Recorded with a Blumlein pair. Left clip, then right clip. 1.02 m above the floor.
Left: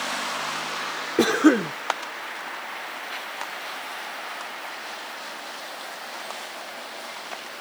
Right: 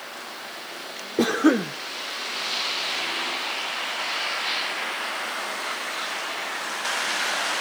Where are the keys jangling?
I don't hear keys jangling.